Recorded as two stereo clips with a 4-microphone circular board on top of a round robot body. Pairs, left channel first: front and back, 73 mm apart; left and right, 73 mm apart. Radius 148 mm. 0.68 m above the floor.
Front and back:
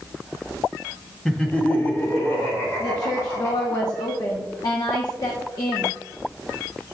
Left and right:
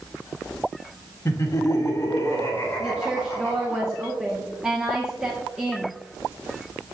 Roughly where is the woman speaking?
Ahead.